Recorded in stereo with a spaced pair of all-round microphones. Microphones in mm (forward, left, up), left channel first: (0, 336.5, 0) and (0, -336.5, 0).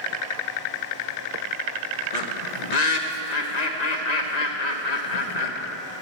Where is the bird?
75° left (ahead or behind), 1.3 m.